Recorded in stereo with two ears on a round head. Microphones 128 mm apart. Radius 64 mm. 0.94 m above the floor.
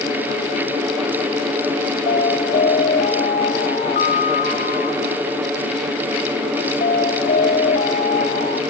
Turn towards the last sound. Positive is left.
turn(degrees=55)  # may be behind; listen again after turning